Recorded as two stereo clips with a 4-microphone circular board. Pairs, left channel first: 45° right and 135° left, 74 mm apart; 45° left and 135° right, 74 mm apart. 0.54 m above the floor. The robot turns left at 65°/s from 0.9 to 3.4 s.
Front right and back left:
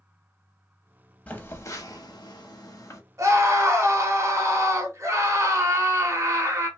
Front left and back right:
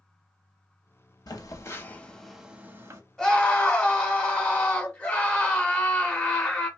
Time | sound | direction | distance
1.3 | a phone buzzing | 20° left | 0.6 m
3.2 | a scream | 125° left | 1.0 m